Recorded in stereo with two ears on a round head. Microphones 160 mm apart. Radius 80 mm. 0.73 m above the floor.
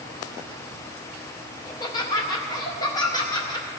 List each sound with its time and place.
1.6 s laughter: 20° left (ahead or behind), 1.0 m